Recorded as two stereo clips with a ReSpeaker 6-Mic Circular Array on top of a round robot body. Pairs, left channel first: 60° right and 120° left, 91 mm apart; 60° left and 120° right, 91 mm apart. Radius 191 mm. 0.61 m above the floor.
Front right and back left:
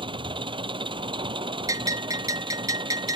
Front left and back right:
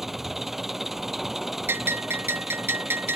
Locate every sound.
0.0 s an engine running: 155° left
1.7 s a bell: 175° left